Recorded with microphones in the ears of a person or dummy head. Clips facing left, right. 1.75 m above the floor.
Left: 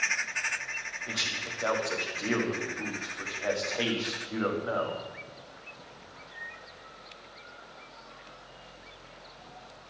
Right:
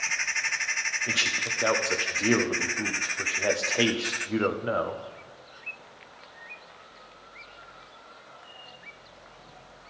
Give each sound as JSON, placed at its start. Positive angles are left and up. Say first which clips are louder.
{"t": 1.1, "sound": "a man speaking", "louder": "right 4 dB", "side_deg": -40, "distance_m": 0.7}